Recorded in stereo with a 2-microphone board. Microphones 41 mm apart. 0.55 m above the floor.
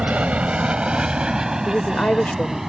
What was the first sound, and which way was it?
An aircraft, 35° right (ahead or behind).